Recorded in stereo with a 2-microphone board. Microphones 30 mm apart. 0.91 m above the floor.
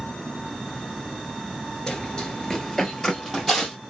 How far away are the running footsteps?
About 0.9 m.